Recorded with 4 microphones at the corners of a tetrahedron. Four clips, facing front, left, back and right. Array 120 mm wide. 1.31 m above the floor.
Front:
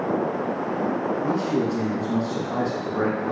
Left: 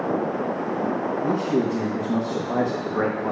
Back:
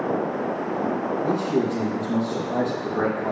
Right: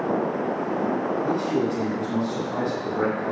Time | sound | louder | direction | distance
1.2 | a man speaking | left 4 dB, back 2 dB | 110° left | 1.0 m